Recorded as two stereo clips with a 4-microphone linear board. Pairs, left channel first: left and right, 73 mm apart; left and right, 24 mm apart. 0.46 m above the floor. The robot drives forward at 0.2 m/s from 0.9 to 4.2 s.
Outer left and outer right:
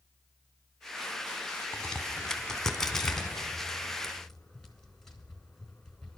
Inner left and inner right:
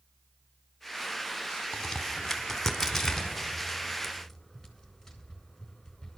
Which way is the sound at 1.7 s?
10° left (ahead or behind).